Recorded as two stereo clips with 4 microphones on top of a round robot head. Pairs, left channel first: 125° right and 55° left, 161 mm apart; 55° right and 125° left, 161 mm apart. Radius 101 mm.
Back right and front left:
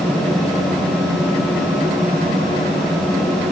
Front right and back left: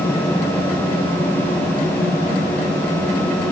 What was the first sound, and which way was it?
Only background noise.